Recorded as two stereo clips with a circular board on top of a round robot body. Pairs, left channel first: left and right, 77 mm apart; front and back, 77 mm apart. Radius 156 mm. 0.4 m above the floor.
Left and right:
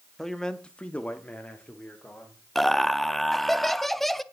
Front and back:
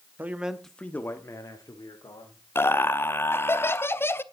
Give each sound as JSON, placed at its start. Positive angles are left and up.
{"t": 0.2, "sound": "a man speaking", "azimuth_deg": 170, "distance_m": 1.4}
{"t": 2.5, "sound": "laughter", "azimuth_deg": 5, "distance_m": 0.9}